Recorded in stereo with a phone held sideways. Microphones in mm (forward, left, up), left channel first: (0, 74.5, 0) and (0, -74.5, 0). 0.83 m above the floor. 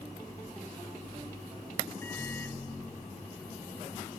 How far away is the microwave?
About 0.6 m.